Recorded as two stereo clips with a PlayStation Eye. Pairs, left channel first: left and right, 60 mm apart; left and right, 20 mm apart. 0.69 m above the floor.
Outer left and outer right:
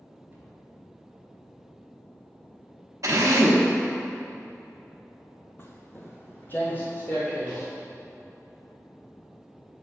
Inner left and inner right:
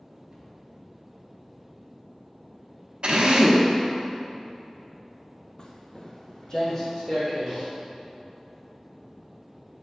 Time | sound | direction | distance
0.3 | a cupboard door | 30° right (ahead or behind) | 2 m
3.0 | a drill | 60° right (ahead or behind) | 0.8 m
5.6 | footsteps | 40° left (ahead or behind) | 0.8 m